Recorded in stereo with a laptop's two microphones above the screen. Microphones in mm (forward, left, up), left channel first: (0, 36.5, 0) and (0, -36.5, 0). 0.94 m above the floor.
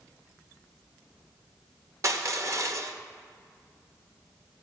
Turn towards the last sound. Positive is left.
turn(degrees=-45)  # may be behind; listen again after turning